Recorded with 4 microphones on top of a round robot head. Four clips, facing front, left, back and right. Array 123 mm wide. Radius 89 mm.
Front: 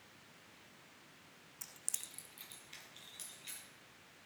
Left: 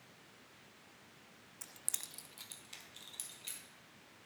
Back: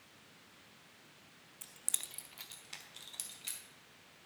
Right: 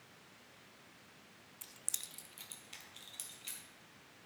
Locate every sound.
1.6 s keys jangling: 50° left, 0.5 m; by 3.6 s 175° left, 2.5 m